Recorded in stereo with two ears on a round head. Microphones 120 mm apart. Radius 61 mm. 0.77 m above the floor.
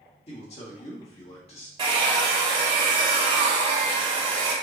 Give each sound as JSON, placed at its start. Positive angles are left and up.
{"t": 0.3, "sound": "a man speaking", "side_deg": 45, "distance_m": 1.5}
{"t": 1.8, "sound": "a hair dryer", "side_deg": -35, "distance_m": 1.3}